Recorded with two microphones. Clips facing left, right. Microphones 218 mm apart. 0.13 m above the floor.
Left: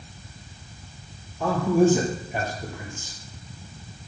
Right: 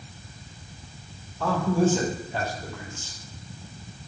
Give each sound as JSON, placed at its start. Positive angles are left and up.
{"t": 1.4, "sound": "a man speaking", "side_deg": 15, "distance_m": 2.5}